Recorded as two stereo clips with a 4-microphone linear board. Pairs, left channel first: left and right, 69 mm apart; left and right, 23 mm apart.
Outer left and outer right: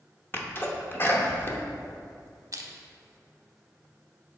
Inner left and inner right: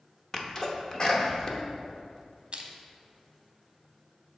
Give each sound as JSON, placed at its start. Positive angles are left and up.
{"t": 0.3, "sound": "a sneeze", "side_deg": 35, "distance_m": 0.8}
{"t": 2.5, "sound": "crushing", "side_deg": -55, "distance_m": 0.7}